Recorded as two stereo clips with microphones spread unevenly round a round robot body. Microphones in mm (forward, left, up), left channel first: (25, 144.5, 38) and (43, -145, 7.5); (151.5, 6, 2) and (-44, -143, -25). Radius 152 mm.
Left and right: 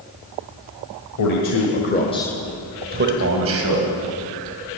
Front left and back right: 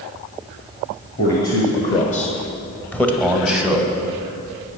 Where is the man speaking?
95° left, 1.6 m; by 3.9 s 60° right, 2.5 m.